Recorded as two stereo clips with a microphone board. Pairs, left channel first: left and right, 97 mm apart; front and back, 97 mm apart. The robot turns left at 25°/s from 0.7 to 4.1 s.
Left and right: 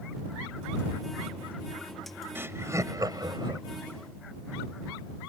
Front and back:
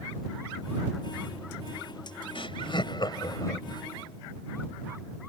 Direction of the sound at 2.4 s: 25° right.